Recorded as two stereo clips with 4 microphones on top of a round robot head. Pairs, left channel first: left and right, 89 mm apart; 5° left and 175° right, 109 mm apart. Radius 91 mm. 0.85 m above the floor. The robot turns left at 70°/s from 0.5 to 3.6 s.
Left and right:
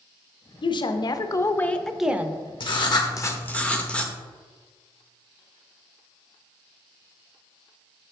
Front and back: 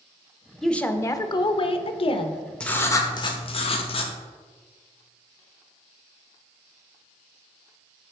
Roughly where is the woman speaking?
Left.